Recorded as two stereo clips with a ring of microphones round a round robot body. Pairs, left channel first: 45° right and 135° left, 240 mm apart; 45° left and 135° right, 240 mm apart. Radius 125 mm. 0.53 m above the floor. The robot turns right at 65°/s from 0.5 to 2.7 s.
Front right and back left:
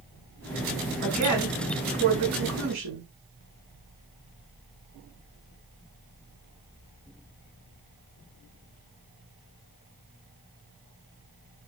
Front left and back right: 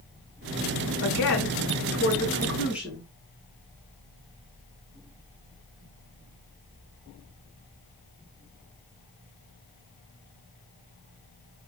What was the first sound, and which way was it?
A woman speaking, 30° left.